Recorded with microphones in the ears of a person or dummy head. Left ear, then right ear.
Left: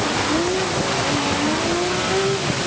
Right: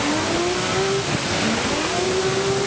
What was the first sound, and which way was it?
Only background noise.